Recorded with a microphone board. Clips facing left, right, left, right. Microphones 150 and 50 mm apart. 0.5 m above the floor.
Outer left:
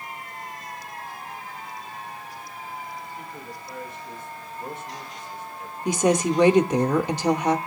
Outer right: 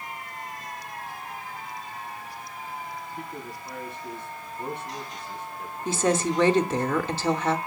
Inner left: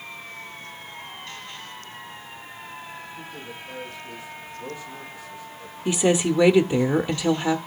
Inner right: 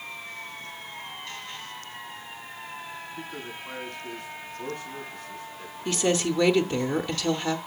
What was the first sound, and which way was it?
A man speaking, 60° right (ahead or behind).